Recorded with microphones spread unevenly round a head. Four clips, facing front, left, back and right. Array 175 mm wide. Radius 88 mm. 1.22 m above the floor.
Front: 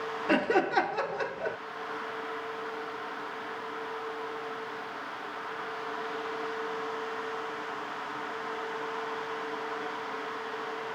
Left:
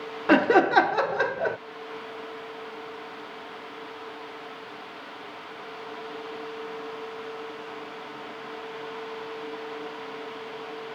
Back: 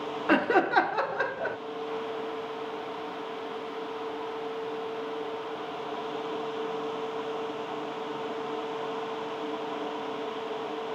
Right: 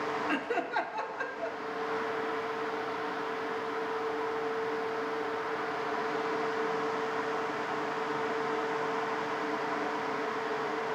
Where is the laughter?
90° left.